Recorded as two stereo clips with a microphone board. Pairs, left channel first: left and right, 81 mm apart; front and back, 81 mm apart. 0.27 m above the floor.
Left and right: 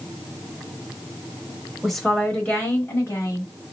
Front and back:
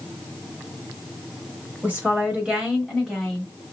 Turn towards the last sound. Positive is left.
turn(degrees=80)